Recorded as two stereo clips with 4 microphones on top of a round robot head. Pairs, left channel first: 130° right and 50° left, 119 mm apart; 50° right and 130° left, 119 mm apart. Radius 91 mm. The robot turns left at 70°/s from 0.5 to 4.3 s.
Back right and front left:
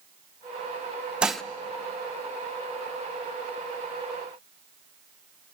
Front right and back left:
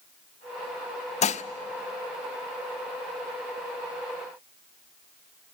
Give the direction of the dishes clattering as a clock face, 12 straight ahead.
1 o'clock.